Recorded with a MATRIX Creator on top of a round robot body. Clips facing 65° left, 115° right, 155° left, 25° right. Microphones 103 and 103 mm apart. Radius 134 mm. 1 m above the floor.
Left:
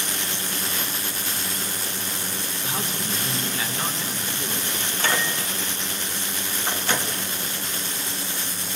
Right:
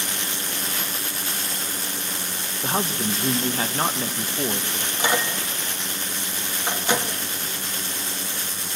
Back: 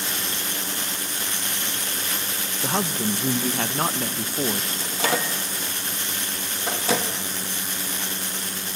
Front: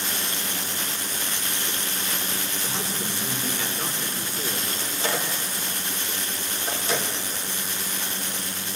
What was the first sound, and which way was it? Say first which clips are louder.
A man speaking: right 7 dB, back 10 dB; 165° right.